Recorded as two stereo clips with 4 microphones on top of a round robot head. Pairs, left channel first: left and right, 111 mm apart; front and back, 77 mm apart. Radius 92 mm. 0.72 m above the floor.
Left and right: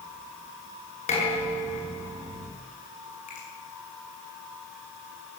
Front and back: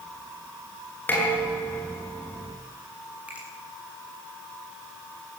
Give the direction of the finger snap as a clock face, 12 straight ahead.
8 o'clock.